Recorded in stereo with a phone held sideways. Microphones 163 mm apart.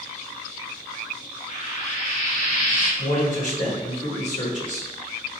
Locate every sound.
1.5 s frying: 55° left (ahead or behind), 1.1 m
3.0 s a man speaking: 55° left (ahead or behind), 1.5 m